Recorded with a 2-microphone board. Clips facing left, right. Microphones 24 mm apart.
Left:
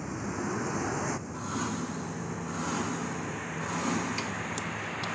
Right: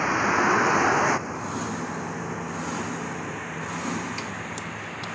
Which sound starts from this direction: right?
A vehicle, at 0.0 s.